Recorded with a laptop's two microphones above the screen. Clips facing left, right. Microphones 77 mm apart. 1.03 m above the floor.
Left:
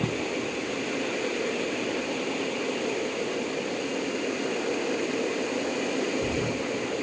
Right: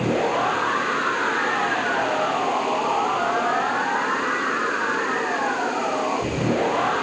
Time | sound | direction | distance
0.0 | a machine running | 70° right (ahead or behind) | ?